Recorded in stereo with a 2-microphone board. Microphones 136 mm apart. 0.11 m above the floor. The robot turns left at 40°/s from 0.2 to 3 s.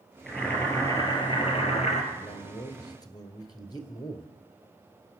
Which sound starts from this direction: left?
A man speaking, at 2.1 s.